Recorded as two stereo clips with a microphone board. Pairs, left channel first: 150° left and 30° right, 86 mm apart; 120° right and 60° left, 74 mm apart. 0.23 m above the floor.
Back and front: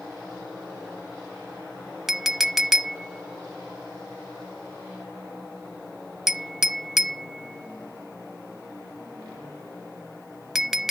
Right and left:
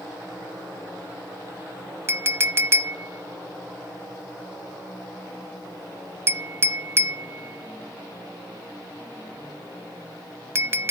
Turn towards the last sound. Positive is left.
turn(degrees=55)